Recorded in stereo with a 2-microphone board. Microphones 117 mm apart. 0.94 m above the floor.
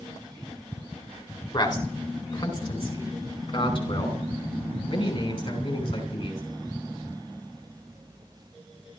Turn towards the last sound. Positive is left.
turn(degrees=50)  # may be behind; listen again after turning